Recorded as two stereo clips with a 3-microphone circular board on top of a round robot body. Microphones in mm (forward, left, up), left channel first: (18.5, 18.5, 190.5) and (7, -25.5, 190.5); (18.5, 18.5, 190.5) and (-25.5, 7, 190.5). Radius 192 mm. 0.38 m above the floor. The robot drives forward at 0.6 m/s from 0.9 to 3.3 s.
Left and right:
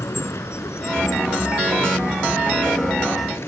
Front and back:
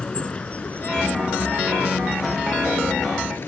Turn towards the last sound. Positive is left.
turn(degrees=50)